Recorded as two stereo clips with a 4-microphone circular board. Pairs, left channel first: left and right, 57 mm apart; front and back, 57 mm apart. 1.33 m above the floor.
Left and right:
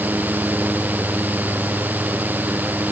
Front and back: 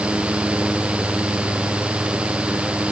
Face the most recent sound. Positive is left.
No sound to turn to.